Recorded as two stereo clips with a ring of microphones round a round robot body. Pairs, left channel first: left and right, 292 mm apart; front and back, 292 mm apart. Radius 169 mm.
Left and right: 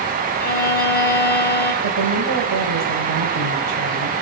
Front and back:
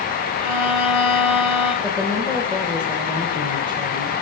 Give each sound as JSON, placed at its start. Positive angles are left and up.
{"t": 0.4, "sound": "a violin", "azimuth_deg": 30, "distance_m": 4.5}
{"t": 1.8, "sound": "a woman speaking", "azimuth_deg": -85, "distance_m": 3.0}